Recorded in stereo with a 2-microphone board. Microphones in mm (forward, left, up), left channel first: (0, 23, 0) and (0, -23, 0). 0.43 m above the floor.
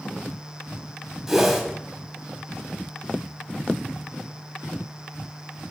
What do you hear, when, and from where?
1.3 s a whoosh: 10° right (ahead or behind), 1.4 m